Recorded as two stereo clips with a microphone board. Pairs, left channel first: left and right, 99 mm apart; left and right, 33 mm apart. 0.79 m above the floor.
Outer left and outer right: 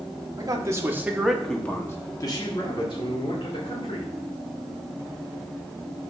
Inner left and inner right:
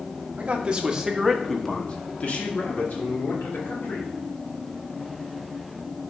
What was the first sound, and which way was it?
A man speaking, 40° right (ahead or behind).